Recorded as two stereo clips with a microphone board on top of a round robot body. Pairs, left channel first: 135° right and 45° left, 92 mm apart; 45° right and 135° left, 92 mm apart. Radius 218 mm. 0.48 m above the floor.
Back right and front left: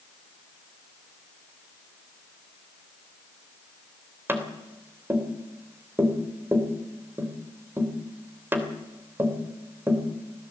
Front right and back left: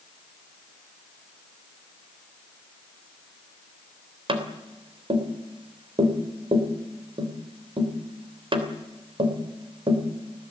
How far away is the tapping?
About 3 m.